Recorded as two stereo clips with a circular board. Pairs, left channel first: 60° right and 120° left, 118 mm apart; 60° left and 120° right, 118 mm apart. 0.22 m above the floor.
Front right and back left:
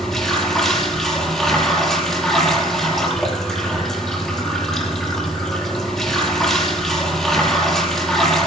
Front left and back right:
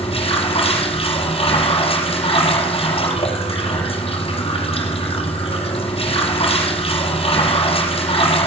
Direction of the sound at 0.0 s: 25° left.